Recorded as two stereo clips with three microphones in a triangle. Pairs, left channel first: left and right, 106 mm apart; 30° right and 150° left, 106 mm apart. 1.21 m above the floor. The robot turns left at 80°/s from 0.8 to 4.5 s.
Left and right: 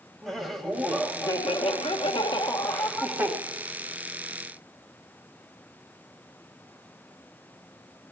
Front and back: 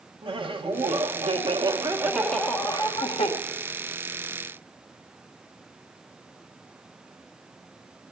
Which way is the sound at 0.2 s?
Straight behind.